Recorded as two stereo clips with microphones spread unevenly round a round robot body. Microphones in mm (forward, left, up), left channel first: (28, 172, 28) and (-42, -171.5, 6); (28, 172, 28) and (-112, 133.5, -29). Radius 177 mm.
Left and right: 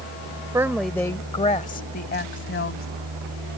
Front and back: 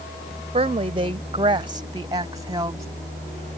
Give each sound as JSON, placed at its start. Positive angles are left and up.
{"t": 0.5, "sound": "a woman speaking", "azimuth_deg": 180}